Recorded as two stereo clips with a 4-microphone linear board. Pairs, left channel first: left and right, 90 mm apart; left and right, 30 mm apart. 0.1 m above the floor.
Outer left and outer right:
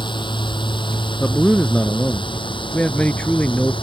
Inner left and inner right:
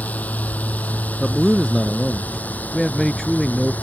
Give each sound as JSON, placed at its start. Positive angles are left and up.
{"t": 0.0, "sound": "a drone", "side_deg": 60}
{"t": 1.2, "sound": "a man speaking", "side_deg": 15}